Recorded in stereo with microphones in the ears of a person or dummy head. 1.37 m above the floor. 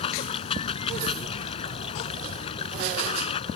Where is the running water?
35° left (ahead or behind).